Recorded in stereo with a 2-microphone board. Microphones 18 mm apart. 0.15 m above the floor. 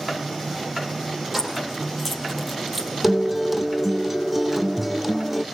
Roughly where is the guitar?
Centre.